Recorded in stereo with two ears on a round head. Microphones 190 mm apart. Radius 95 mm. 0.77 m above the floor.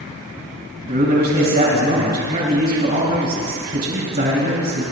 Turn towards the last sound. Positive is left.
turn(degrees=-45)  # may be behind; listen again after turning